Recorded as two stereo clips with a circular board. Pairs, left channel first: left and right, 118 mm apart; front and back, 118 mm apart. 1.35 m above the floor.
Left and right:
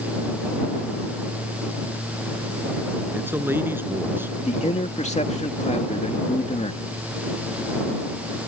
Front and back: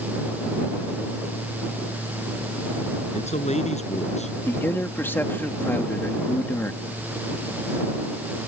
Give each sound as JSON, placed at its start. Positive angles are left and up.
{"t": 3.1, "sound": "a man speaking", "azimuth_deg": -20}
{"t": 4.5, "sound": "a man speaking", "azimuth_deg": 70}